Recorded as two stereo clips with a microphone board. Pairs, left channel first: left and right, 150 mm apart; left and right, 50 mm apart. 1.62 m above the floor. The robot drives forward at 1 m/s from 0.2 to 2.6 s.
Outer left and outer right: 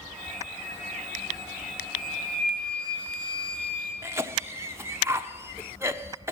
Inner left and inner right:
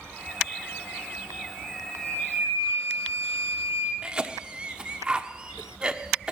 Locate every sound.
1.9 s a flute: 70° right (ahead or behind), 8.5 m; by 3.9 s 65° right (ahead or behind), 8.5 m
4.0 s a cough: 15° right (ahead or behind), 0.9 m